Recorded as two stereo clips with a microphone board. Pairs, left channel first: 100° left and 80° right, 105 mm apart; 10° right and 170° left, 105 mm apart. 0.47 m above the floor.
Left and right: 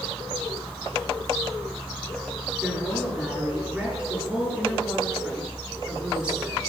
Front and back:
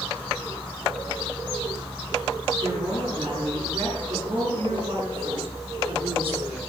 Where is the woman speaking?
160° right, 6.5 m.